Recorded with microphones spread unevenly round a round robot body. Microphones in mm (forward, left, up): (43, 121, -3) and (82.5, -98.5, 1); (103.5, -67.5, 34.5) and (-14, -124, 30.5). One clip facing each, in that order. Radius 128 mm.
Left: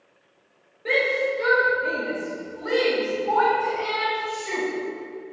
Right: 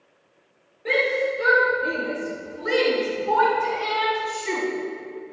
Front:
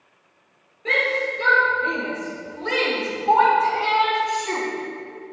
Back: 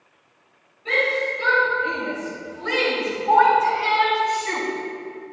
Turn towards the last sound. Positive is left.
turn(degrees=-45)